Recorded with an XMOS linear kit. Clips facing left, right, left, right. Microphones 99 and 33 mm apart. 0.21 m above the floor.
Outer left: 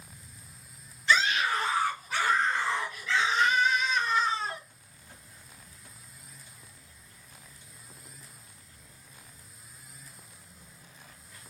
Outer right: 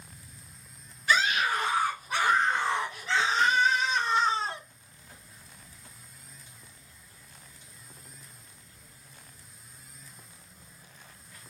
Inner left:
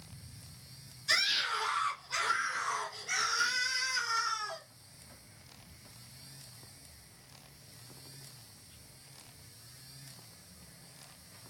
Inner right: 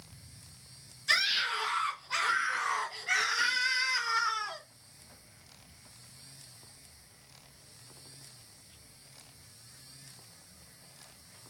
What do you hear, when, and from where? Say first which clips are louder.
1.1 s a scream: even, inner right 2 dB; 15° right (ahead or behind), 2.5 m; by 4.6 s 25° right (ahead or behind), 1.7 m